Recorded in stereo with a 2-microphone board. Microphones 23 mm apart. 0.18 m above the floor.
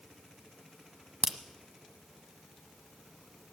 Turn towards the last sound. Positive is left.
turn(degrees=-20)  # may be behind; listen again after turning